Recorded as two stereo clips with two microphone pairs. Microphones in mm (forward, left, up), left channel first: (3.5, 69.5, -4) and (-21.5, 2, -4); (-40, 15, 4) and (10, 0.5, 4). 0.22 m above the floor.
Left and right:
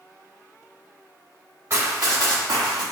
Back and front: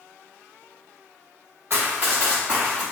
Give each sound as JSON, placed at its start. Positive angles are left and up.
{"t": 1.7, "sound": "running footsteps", "azimuth_deg": -65, "distance_m": 1.6}